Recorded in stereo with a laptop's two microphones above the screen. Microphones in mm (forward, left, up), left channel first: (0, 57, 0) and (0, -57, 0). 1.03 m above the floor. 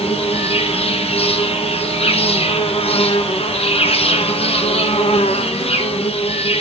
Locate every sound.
0.0 s an insect: 60° left (ahead or behind), 1.0 m